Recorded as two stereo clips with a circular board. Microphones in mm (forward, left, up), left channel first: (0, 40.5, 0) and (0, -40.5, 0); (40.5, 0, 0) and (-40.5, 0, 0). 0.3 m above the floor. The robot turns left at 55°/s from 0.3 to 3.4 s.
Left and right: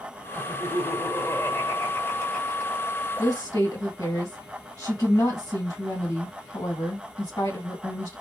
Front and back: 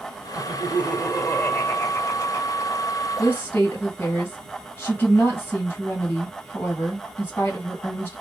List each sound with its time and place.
0.3 s laughter: 130° left, 1.7 m; by 3.0 s 15° right, 1.7 m
3.2 s a woman speaking: 65° left, 2.5 m; by 8.2 s 50° left, 2.5 m